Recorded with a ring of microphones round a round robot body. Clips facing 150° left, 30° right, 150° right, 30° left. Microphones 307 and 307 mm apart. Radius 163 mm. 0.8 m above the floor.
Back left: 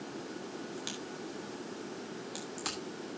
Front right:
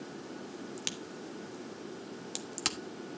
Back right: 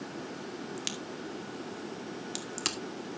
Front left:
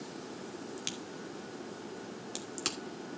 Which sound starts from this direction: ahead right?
A crack, at 0.8 s.